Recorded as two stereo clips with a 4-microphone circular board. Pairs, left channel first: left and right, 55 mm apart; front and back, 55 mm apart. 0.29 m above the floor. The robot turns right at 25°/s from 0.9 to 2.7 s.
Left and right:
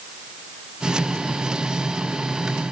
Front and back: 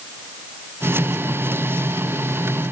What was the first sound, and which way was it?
Only background noise.